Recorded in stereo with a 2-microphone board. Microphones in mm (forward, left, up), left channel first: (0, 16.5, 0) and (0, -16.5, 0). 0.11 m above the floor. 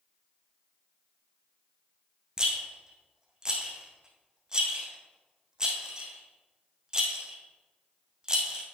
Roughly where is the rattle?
Right.